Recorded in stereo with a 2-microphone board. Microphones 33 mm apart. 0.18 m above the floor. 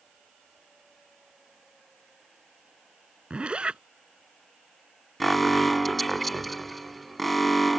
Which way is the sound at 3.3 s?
35° right (ahead or behind).